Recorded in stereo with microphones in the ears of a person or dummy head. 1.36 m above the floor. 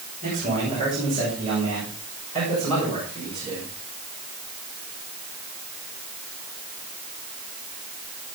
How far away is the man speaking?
About 7.5 m.